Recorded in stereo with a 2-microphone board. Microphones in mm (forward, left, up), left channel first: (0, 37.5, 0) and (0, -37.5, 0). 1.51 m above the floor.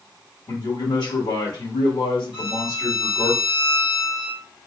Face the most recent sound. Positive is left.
turn(degrees=85)